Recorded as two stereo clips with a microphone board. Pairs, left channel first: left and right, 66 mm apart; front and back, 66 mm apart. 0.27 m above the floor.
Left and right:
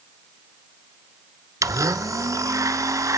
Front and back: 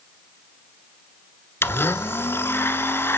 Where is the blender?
55° right, 0.9 m.